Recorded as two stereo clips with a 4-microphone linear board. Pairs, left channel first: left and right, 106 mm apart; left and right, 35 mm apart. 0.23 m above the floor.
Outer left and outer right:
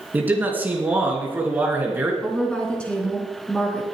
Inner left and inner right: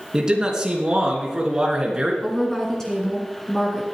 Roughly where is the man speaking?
Centre.